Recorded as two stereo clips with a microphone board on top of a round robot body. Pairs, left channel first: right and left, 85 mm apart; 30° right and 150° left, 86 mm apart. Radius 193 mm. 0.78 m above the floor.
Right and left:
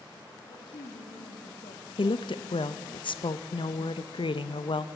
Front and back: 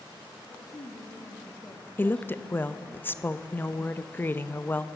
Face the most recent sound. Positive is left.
turn(degrees=-95)